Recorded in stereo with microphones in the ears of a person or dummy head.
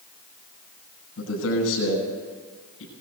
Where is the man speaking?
80° left, 9.5 m.